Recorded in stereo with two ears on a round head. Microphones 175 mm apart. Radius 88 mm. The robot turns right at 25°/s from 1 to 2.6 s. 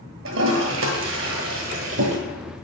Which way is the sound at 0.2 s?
80° right.